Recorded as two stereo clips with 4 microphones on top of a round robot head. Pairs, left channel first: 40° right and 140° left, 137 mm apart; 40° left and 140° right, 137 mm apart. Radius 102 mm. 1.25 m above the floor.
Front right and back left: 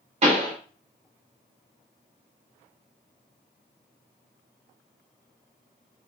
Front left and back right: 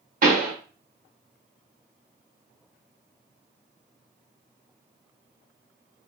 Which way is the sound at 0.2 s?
170° right.